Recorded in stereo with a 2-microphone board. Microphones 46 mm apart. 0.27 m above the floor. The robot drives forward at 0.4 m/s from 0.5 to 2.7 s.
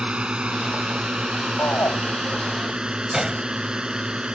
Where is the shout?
75° left (ahead or behind).